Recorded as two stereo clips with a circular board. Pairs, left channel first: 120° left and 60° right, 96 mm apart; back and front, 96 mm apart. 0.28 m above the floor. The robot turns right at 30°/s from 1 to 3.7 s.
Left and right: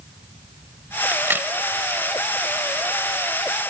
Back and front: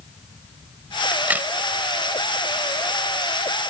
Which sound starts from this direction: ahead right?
A crack, at 1.1 s.